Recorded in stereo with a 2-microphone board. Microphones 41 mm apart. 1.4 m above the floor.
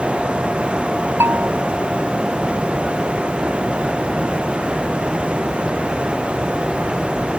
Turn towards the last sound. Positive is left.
turn(degrees=-80)